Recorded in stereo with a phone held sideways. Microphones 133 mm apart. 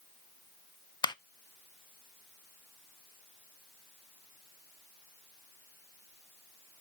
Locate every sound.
1.0 s a clap: 30° left (ahead or behind), 0.6 m